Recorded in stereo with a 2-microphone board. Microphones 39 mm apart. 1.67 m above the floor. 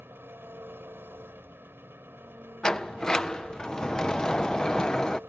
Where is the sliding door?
20° left (ahead or behind).